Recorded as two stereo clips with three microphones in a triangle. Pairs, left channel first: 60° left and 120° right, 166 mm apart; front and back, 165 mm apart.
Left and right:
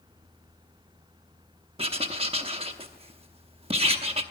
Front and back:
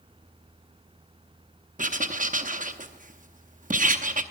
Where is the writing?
165° right, 0.8 m.